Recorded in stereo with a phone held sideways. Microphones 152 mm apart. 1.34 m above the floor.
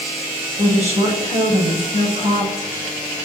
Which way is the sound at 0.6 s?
45° right (ahead or behind).